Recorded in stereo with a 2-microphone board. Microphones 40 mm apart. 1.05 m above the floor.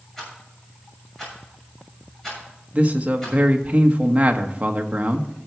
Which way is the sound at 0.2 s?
10° left (ahead or behind).